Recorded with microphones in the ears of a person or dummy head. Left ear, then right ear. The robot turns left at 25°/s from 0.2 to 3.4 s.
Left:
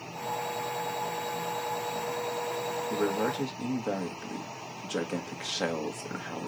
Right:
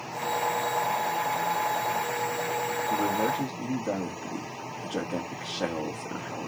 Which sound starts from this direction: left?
A man speaking, at 2.9 s.